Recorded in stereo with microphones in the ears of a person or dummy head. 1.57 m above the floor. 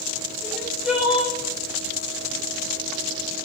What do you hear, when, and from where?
0.4 s crying: 5° right (ahead or behind), 0.7 m